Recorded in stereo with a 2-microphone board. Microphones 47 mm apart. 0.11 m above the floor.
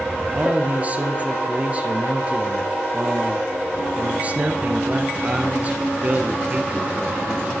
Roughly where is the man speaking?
Right.